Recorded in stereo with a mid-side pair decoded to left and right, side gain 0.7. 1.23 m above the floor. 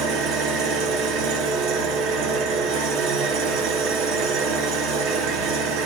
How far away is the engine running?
About 0.9 m.